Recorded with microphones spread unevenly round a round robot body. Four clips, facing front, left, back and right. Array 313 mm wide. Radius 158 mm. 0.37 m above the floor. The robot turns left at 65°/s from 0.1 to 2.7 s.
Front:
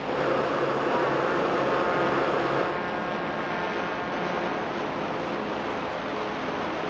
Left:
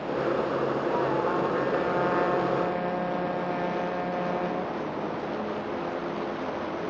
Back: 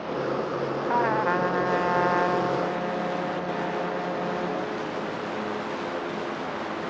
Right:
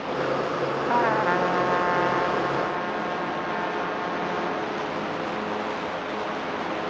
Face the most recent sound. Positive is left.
turn(degrees=130)